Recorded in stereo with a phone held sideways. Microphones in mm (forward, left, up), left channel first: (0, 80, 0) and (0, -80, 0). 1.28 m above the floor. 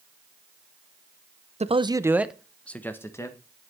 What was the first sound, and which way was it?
A man speaking, 45° right (ahead or behind).